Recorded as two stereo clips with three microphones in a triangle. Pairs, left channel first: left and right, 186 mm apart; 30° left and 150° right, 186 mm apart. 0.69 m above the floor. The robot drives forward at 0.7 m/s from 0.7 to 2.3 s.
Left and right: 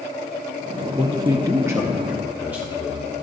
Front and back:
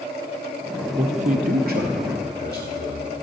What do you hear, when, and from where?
1.0 s a man speaking: 130° right, 0.5 m; by 3.1 s 170° right, 1.2 m